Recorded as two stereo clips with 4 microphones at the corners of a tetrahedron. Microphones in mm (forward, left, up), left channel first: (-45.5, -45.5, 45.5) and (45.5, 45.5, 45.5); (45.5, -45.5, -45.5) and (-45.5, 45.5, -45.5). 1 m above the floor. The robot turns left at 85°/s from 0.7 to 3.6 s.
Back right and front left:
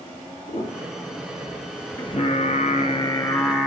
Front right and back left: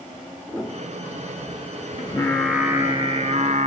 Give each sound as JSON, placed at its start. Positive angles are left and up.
{"t": 0.5, "sound": "a piano", "azimuth_deg": -130, "distance_m": 2.5}
{"t": 2.0, "sound": "singing", "azimuth_deg": -90, "distance_m": 0.6}